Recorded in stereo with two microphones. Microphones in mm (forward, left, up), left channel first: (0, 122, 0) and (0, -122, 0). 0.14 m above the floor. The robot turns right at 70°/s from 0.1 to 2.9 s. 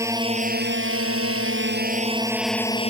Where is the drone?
165° right; by 2.9 s 30° left.